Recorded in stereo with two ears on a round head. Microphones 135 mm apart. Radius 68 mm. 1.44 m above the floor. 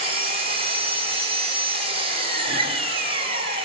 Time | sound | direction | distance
0.0 | an engine running | 40° right (ahead or behind) | 5 m
2.5 | a guitar | 35° right (ahead or behind) | 5.5 m